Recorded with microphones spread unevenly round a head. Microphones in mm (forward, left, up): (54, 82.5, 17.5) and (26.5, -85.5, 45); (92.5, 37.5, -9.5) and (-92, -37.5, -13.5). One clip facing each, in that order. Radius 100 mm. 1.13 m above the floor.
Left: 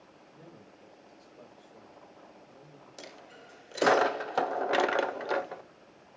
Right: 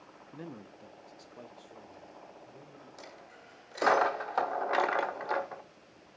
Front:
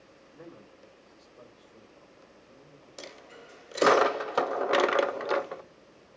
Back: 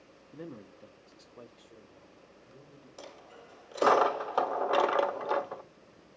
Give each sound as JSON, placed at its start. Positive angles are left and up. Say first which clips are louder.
{"t": 0.3, "sound": "a man speaking", "louder": "right 9 dB, back 5 dB", "azimuth_deg": -105, "distance_m": 1.3}
{"t": 3.0, "sound": "a dropped coin", "louder": "left 2 dB, front 3 dB", "azimuth_deg": 35, "distance_m": 0.8}